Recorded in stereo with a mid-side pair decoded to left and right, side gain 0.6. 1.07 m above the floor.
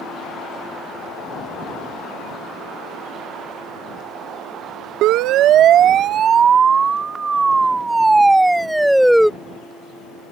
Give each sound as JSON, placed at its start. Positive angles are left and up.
{"t": 5.0, "sound": "a siren", "azimuth_deg": -70}